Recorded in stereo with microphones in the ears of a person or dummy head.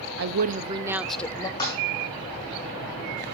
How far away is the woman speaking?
About 0.6 m.